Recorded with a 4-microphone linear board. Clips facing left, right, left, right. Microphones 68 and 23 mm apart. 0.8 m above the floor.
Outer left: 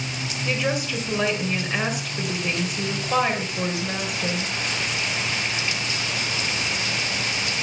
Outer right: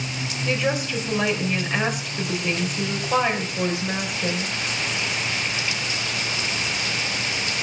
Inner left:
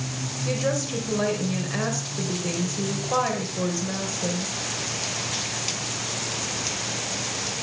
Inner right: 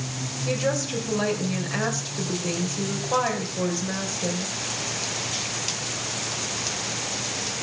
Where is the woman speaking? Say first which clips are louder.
Outer right 1 dB, inner right 1 dB; centre (ahead or behind), 4 m.